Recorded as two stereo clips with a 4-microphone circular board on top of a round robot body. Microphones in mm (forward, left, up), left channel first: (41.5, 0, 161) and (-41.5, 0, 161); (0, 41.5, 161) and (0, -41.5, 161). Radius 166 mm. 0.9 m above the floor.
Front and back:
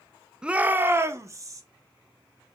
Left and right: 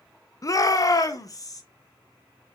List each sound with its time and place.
0.4 s a shout: 105° left, 0.8 m; by 1.6 s 130° left, 1.4 m